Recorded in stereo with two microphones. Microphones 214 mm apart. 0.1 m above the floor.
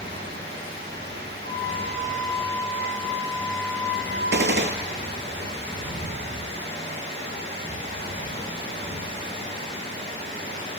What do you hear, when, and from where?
0.0 s running water: 55° right (ahead or behind), 6 m
1.4 s a flute: 60° left (ahead or behind), 4 m
4.3 s a gunshot: 60° right (ahead or behind), 0.7 m